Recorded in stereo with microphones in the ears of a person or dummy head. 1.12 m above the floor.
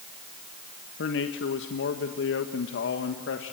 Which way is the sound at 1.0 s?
60° left (ahead or behind).